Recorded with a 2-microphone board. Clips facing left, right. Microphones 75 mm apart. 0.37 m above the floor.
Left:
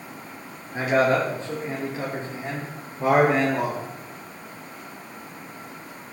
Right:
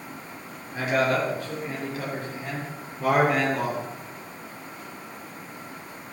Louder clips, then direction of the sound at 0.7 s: Left 3 dB; 25° left (ahead or behind).